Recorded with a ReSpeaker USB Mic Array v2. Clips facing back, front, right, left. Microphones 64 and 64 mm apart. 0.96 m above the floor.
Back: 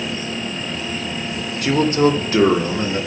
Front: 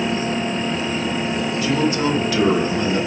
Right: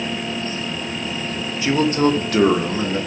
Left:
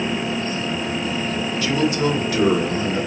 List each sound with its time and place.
1.6 s a man speaking: 155° right, 0.9 m; by 3.0 s 115° right, 1.7 m